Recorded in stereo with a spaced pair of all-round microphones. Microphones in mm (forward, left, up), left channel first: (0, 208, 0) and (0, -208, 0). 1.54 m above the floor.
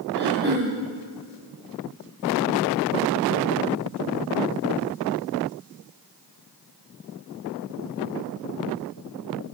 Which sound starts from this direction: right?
Throat clearing, at 0.1 s.